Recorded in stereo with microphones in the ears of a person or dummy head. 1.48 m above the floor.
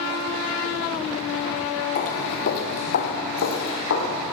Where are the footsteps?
45° left (ahead or behind), 2 m; by 4.2 s 70° left (ahead or behind), 4.5 m.